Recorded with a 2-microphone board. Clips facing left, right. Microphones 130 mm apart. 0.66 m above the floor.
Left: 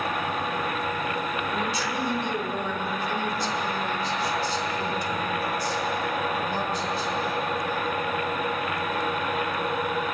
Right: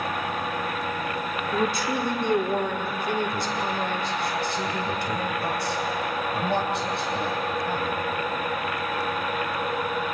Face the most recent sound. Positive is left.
turn(degrees=-65)  # may be behind; listen again after turning